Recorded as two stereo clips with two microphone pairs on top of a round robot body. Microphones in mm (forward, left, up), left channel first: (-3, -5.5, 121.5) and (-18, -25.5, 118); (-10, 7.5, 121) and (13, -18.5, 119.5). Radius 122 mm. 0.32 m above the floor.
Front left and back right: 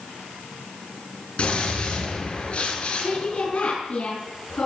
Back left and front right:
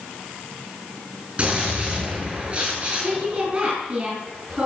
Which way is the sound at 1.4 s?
10° left.